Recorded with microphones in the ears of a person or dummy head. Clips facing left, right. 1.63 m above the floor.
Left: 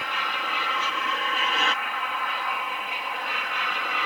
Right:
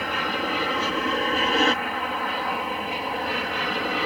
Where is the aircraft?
35° right (ahead or behind); by 4.1 s 30° right (ahead or behind).